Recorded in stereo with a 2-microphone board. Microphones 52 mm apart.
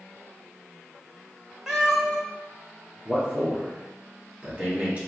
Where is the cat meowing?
10° right (ahead or behind), 0.7 m.